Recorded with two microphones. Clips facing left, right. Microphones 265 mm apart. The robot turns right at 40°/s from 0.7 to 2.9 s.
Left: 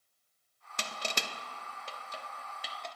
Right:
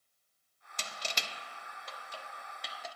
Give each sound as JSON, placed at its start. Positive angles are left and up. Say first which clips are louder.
{"t": 0.8, "sound": "crushing", "louder": "left 4 dB", "side_deg": 70, "distance_m": 0.5}